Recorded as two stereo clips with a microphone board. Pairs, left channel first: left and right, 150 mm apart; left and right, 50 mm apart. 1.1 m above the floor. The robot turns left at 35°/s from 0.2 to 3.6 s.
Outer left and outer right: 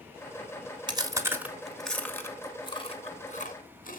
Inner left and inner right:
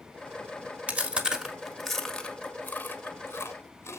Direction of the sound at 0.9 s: 30° right (ahead or behind).